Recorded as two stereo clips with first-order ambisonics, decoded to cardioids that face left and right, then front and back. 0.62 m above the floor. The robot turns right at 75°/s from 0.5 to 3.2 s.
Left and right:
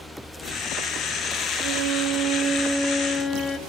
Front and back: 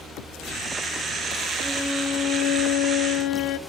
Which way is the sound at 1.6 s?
100° right.